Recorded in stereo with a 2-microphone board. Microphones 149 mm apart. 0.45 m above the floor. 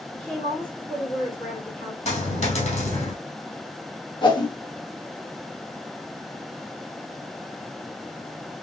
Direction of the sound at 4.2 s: 30° left (ahead or behind).